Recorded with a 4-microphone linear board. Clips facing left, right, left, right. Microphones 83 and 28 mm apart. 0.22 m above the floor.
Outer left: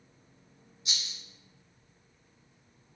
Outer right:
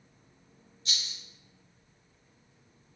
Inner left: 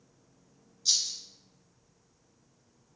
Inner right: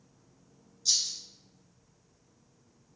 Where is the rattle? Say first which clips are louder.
Outer right 1 dB, inner left 1 dB; 15° left (ahead or behind), 1.5 m.